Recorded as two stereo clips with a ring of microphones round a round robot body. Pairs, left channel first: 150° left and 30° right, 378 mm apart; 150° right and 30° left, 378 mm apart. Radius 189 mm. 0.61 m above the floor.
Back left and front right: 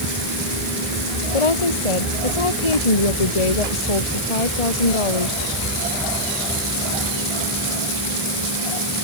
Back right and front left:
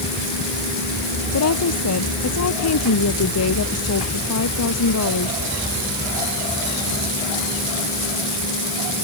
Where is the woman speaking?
160° left.